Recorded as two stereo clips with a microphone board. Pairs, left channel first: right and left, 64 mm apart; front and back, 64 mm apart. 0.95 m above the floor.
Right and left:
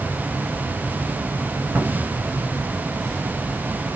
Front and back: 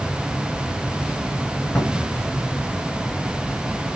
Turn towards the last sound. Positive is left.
turn(degrees=60)